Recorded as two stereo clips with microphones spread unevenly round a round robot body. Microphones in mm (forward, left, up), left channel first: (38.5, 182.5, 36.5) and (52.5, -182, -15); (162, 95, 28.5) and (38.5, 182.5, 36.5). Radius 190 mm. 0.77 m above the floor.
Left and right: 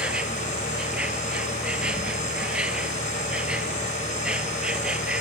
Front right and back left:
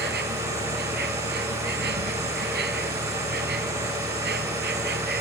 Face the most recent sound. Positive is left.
turn(degrees=-175)